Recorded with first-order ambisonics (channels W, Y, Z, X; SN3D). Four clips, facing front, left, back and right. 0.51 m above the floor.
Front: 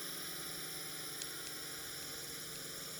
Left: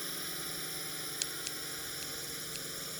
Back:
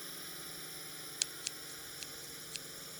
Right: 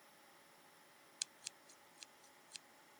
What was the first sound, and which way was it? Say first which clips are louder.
A drone: left 23 dB, front 2 dB; 85° left.